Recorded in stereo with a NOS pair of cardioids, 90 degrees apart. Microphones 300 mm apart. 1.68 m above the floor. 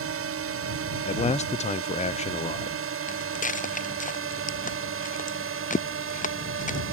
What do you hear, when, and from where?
0.0 s a drone: 50° right; by 6.9 s 45° right
1.1 s a man speaking: 25° left
3.1 s footsteps: 25° left